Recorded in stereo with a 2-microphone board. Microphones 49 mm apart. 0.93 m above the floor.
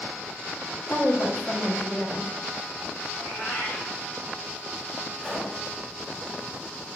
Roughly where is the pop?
Centre.